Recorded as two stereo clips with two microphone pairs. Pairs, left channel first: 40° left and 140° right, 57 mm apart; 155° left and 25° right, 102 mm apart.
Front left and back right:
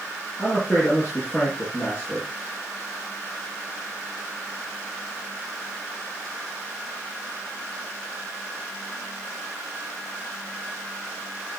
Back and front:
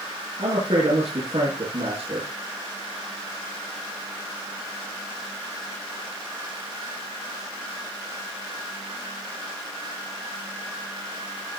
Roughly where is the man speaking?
Ahead.